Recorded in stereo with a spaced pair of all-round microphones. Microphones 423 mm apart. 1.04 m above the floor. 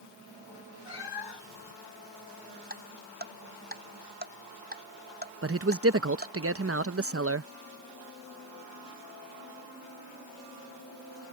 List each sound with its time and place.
0.8 s a cat meowing: 65° left (ahead or behind)
2.7 s ticking: 20° right (ahead or behind)
5.4 s a man speaking: 35° right (ahead or behind)